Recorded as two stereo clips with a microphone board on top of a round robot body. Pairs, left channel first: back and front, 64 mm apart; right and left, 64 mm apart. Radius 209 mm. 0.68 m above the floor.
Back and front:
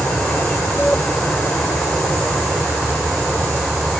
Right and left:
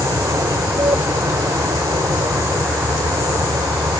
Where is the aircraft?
105° left; by 4.0 s 100° left.